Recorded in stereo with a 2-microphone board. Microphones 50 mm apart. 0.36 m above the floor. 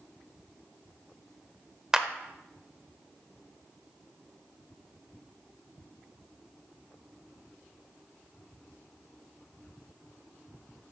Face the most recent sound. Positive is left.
turn(degrees=-15)  # may be behind; listen again after turning